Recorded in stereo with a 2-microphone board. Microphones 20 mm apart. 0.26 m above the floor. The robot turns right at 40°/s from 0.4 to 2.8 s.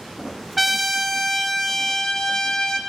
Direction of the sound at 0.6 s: 20° right.